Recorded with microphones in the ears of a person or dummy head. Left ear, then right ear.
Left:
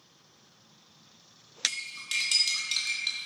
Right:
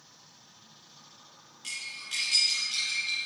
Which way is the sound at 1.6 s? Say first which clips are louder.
Left 5 dB; 40° left (ahead or behind).